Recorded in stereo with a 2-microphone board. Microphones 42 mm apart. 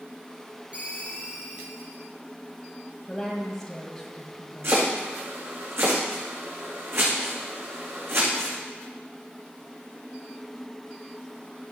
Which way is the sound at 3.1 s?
10° left (ahead or behind).